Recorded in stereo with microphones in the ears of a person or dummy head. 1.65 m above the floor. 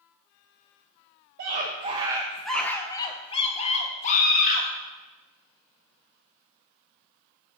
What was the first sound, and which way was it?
A scream, 55° right (ahead or behind).